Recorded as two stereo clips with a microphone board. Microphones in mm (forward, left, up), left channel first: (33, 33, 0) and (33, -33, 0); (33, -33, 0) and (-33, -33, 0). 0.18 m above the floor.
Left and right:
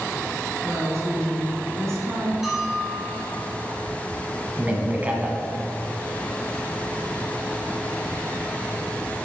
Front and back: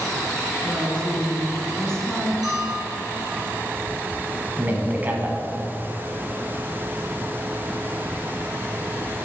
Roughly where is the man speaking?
Behind right.